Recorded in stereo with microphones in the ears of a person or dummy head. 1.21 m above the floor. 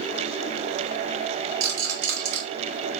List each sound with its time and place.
1.6 s a rattle: 65° right (ahead or behind), 2.5 m